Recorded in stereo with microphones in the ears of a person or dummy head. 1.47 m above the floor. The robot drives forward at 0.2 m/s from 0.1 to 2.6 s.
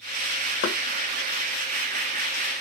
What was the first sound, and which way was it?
Knocking, 55° left (ahead or behind).